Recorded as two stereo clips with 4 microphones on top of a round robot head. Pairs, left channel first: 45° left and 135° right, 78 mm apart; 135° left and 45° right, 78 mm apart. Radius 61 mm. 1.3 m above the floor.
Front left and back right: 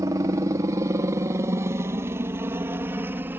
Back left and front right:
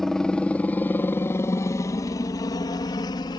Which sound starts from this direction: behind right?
A helicopter, at 0.0 s.